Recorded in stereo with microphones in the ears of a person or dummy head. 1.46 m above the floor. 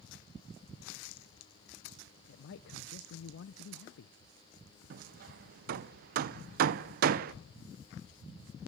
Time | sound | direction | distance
2.3 | a man speaking | 70° left (ahead or behind) | 0.6 m
4.9 | hammering | 55° right (ahead or behind) | 0.5 m